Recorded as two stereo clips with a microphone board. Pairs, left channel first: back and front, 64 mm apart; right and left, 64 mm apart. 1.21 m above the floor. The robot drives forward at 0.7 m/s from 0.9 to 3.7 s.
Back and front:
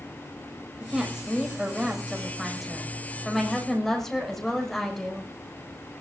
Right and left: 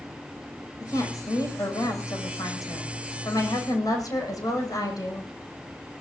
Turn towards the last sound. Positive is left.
turn(degrees=-95)